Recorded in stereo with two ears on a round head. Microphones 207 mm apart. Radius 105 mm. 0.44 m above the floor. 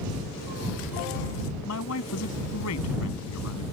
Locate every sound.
1.6 s a man speaking: 75° left (ahead or behind)